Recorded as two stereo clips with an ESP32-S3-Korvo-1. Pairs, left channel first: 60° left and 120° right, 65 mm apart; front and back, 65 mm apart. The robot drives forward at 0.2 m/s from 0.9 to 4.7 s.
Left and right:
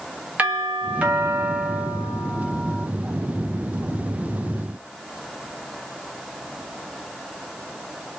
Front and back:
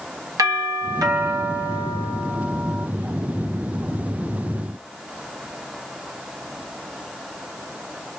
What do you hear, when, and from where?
0.4 s a doorbell: 175° left, 1.2 m